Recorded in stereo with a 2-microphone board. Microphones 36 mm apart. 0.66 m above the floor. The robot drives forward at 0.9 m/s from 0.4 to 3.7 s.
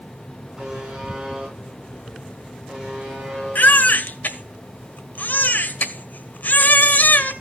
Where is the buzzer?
20° right (ahead or behind), 6.5 m; by 3.6 s 15° right (ahead or behind), 9 m.